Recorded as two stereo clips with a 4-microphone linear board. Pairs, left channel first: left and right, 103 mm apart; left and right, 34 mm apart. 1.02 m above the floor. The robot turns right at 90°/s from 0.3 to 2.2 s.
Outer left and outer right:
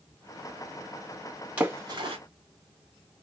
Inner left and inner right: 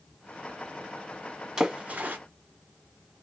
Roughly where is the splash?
Centre.